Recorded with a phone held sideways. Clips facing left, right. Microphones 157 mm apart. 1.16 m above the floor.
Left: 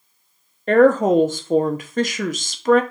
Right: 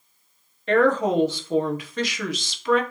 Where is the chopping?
I don't hear chopping.